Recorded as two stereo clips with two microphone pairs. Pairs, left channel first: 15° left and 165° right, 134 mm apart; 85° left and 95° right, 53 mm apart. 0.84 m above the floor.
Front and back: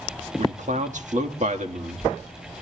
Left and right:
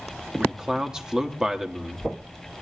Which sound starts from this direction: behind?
A man speaking, at 0.4 s.